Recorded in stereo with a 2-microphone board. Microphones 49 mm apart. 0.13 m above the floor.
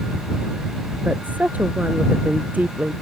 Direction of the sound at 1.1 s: 30° right (ahead or behind).